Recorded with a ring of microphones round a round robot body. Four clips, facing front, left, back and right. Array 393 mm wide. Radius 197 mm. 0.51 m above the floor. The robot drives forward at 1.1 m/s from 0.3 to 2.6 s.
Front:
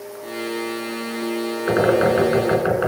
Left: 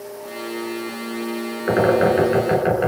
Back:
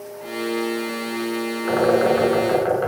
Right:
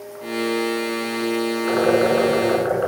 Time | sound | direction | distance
1.7 | a bird | 50° left | 6.5 m